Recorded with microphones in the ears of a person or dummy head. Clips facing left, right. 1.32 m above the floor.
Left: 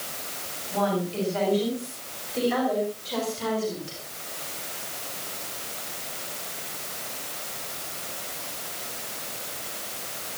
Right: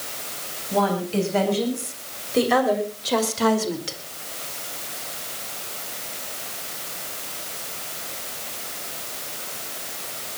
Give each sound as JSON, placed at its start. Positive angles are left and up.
{"t": 0.7, "sound": "a woman speaking", "side_deg": -55, "distance_m": 8.0}